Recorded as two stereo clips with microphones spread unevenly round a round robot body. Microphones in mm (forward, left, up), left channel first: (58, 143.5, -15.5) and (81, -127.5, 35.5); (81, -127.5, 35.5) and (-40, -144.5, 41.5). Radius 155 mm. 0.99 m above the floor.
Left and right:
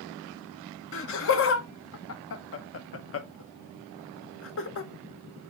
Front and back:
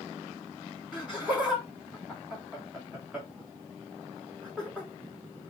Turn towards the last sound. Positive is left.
turn(degrees=105)